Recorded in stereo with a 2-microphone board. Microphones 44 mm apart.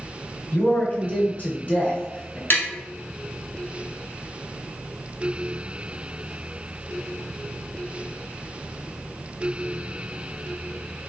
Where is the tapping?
55° left (ahead or behind), 1.0 m.